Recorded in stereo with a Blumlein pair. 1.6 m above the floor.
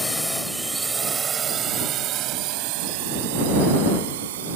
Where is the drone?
5° left; by 4.6 s 60° right.